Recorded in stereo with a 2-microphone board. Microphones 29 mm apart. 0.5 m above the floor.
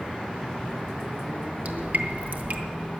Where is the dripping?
70° right (ahead or behind), 1.4 m.